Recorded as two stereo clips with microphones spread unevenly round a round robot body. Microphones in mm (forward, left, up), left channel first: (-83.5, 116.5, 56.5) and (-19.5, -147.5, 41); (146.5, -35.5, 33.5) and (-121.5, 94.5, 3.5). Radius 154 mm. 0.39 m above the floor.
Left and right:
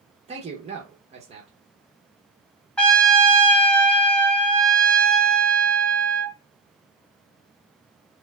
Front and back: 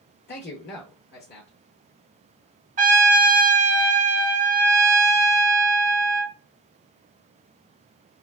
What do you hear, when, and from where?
0.3 s a man speaking: 50° right, 0.9 m
2.8 s a trumpet: 170° right, 1.1 m